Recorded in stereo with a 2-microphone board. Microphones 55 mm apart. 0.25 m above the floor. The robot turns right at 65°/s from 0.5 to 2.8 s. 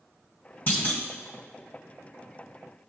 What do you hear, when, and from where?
0.7 s a clunk: 35° left (ahead or behind), 1.5 m; by 1.0 s 40° left (ahead or behind), 1.5 m